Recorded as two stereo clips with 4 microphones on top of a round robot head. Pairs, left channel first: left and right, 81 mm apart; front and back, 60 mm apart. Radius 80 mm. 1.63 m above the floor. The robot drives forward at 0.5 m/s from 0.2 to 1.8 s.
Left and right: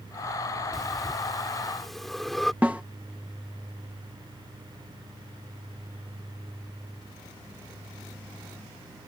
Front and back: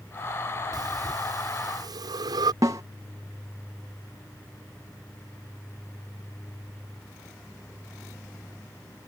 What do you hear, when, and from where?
0.7 s breathing: straight behind
2.6 s a snare drum: 165° right